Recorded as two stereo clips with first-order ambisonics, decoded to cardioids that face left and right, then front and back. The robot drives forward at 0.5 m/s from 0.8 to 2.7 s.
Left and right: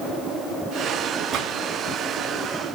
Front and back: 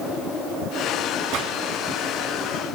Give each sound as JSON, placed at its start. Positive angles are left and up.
{"t": 1.3, "sound": "a gunshot", "azimuth_deg": -145, "distance_m": 3.5}